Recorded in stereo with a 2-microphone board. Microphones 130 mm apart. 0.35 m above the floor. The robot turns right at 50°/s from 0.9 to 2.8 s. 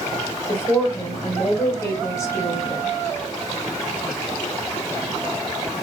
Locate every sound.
0.5 s a woman speaking: 20° left (ahead or behind), 1.0 m; by 3.0 s 15° left (ahead or behind), 1.0 m